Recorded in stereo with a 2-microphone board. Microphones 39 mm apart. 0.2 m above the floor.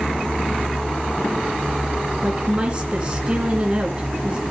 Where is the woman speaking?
25° right (ahead or behind), 2 m.